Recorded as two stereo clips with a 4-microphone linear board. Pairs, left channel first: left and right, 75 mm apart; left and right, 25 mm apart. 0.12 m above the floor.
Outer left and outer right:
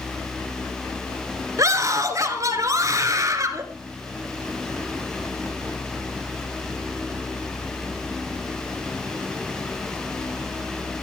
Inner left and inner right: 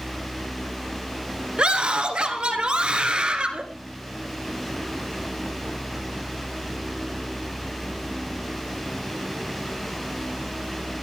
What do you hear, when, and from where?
1.6 s a scream: 45° right (ahead or behind), 2.5 m